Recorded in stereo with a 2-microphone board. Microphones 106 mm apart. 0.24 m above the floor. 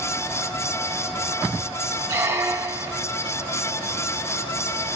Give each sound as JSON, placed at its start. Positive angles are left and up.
{"t": 2.1, "sound": "a squeak", "side_deg": -25, "distance_m": 0.9}